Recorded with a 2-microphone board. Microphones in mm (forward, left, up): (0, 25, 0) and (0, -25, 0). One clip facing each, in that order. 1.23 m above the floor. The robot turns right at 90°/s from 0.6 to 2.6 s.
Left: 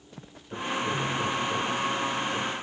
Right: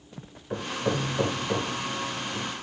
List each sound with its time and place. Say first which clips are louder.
0.5 s hammering: right 1 dB; 55° right (ahead or behind), 1.8 m; by 2.5 s 50° left (ahead or behind), 1.8 m